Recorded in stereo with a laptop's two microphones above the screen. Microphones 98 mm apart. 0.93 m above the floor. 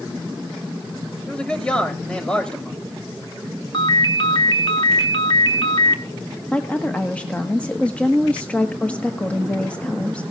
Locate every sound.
1.3 s a man speaking: 10° left (ahead or behind), 3.5 m
3.7 s a ringtone: 50° left (ahead or behind), 1.7 m
6.5 s a woman speaking: 15° left (ahead or behind), 1.3 m